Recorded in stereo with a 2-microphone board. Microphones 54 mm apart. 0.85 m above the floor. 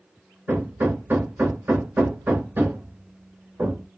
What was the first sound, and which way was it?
Hammering, 35° right (ahead or behind).